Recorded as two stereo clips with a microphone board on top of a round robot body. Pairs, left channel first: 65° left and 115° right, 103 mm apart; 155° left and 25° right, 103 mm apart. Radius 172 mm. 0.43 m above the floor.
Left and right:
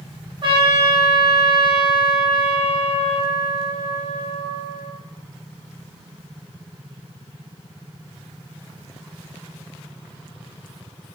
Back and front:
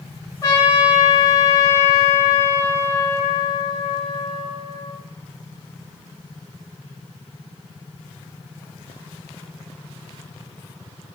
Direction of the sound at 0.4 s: 150° right.